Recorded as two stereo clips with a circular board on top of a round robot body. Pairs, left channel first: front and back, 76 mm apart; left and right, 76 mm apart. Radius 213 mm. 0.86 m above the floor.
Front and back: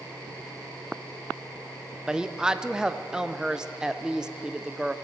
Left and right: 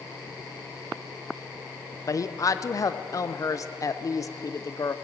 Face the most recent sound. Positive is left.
turn(degrees=105)